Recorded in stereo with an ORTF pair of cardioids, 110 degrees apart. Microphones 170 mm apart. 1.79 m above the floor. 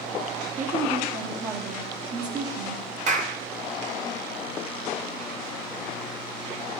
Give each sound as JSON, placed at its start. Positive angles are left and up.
{"t": 0.6, "sound": "a woman speaking", "azimuth_deg": -50, "distance_m": 1.8}
{"t": 3.1, "sound": "a clap", "azimuth_deg": -50, "distance_m": 1.3}